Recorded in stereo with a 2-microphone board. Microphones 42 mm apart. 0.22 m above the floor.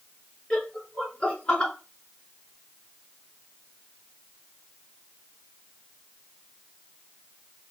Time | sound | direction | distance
0.5 | laughter | 25° left (ahead or behind) | 3 m